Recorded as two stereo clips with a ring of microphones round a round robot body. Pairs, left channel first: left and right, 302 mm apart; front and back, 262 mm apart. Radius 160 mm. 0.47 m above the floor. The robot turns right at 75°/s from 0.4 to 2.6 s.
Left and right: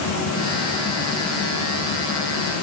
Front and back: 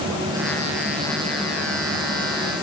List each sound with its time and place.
Only background noise.